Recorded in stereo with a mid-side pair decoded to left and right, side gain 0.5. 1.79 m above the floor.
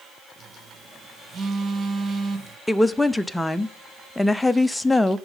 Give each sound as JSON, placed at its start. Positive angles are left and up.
{"t": 0.4, "sound": "a phone buzzing", "azimuth_deg": -40, "distance_m": 2.5}
{"t": 2.7, "sound": "a woman speaking", "azimuth_deg": 10, "distance_m": 0.7}